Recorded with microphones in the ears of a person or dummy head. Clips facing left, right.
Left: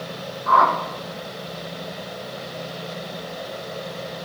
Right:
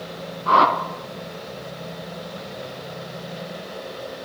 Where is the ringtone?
No ringtone in this recording.